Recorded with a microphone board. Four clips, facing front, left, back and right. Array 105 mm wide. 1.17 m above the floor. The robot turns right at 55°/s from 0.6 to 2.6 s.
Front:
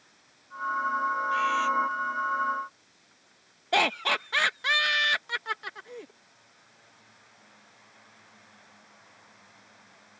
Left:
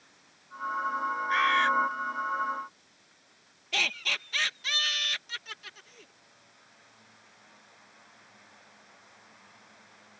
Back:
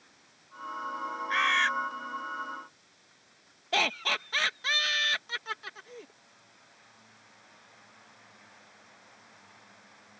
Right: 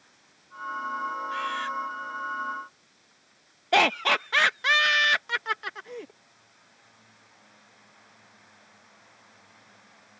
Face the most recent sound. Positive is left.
turn(degrees=-75)